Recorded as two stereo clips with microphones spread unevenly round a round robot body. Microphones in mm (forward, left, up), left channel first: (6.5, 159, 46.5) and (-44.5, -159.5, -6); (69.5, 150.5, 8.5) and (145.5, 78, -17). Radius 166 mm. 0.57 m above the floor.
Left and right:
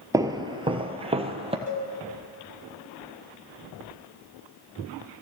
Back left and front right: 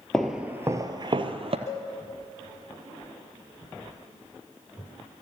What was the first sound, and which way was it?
Footsteps, 170° left.